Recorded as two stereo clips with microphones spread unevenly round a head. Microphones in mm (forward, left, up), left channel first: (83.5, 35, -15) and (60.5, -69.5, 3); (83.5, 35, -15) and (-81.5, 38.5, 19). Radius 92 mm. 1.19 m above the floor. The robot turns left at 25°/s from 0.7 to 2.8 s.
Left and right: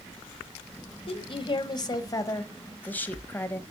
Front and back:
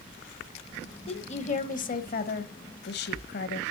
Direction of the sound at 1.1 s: 50° left.